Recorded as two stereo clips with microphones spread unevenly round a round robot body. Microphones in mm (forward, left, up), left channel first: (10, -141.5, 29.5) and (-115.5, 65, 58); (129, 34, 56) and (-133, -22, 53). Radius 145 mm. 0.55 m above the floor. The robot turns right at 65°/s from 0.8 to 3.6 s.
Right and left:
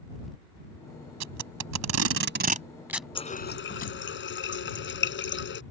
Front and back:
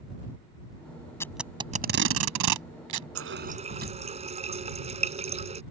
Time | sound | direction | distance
1.2 | tape being pulled | 90° left | ?
3.1 | a running tap | 130° right | ?